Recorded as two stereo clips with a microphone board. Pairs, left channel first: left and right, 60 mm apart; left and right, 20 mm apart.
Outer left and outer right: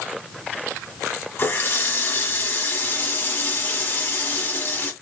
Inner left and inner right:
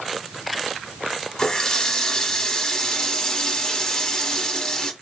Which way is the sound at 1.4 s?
40° left (ahead or behind).